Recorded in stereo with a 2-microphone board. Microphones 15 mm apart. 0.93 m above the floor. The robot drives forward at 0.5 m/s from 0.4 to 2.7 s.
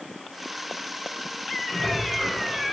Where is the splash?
60° left (ahead or behind), 3.5 m; by 2.7 s 65° left (ahead or behind), 3.5 m.